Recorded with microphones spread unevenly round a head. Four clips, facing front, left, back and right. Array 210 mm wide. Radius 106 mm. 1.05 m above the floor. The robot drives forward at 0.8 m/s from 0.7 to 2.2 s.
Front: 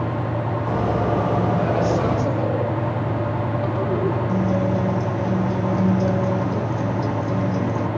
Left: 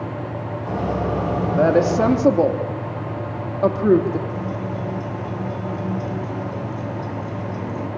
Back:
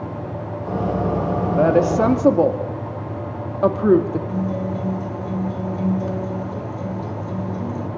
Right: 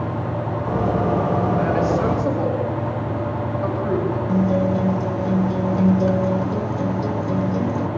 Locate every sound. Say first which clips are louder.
1.6 s a woman speaking: left 3 dB, back 4 dB; 135° left, 2 m; by 4.2 s 145° left, 2.5 m
4.3 s a guitar: right 8 dB, front 3 dB; 70° right, 2.5 m